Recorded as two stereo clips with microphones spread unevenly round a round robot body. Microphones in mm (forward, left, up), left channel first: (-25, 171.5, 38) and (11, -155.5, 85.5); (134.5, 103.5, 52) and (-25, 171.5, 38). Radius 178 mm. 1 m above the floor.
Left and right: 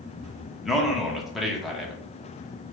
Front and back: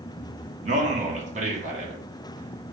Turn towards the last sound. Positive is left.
turn(degrees=180)